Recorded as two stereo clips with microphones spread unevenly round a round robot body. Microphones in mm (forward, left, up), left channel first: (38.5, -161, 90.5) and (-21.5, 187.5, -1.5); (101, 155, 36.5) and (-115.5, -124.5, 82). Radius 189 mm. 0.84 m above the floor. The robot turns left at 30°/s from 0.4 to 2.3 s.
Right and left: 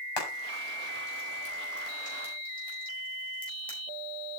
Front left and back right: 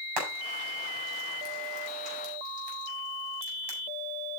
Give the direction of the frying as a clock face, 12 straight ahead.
3 o'clock.